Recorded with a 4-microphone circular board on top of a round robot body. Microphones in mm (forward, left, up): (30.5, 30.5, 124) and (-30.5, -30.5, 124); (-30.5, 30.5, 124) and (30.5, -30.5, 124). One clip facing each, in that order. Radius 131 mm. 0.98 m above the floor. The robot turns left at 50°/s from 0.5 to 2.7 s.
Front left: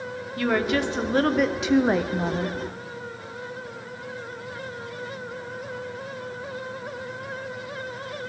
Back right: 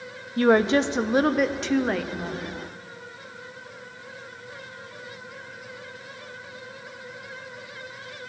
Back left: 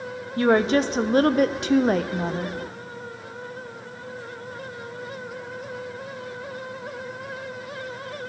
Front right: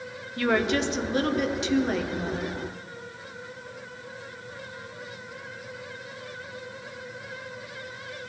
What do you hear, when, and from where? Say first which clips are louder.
0.4 s a woman speaking: back right 5 dB, back left 5 dB; 175° right, 0.5 m; by 2.6 s 80° left, 0.5 m